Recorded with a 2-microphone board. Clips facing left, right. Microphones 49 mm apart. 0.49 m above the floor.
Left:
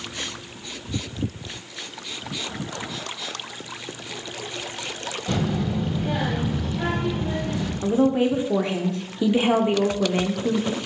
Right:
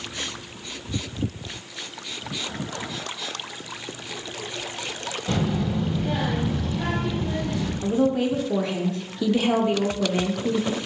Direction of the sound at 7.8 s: 20° left (ahead or behind).